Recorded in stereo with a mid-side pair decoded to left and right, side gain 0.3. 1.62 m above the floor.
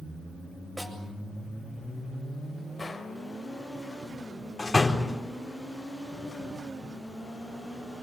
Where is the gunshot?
35° left, 3.5 m.